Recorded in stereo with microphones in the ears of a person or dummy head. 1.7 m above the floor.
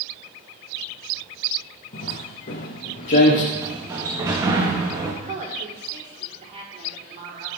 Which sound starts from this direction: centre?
A sliding door, at 3.5 s.